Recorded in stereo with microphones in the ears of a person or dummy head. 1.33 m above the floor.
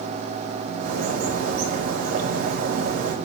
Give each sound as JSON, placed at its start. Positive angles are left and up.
{"t": 0.8, "sound": "a bird", "side_deg": -55, "distance_m": 1.3}